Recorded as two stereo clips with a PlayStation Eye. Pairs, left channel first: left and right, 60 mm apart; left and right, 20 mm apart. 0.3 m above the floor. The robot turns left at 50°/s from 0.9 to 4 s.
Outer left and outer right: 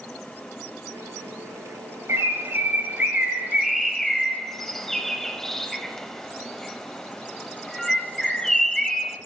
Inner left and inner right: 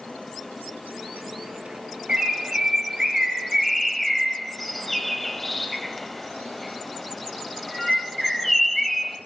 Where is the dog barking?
No dog barking in this recording.